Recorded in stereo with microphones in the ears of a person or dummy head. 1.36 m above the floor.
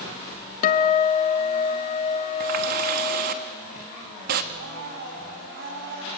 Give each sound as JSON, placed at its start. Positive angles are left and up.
{"t": 0.6, "sound": "a guitar", "side_deg": 45, "distance_m": 1.5}
{"t": 2.4, "sound": "a running tap", "side_deg": -50, "distance_m": 1.1}
{"t": 4.5, "sound": "a blender", "side_deg": -60, "distance_m": 4.0}